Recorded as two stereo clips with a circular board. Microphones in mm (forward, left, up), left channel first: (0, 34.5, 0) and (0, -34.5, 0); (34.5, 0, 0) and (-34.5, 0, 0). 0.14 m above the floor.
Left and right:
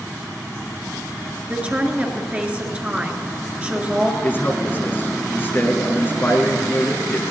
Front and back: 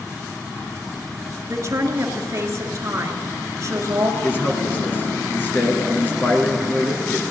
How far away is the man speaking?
About 2 m.